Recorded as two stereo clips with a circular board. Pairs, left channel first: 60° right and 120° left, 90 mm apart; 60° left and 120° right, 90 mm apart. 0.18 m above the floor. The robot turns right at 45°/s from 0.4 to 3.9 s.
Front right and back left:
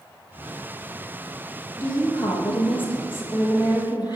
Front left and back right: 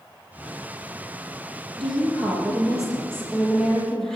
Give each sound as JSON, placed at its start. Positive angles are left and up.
{"t": 1.8, "sound": "a woman speaking", "azimuth_deg": -120, "distance_m": 4.5}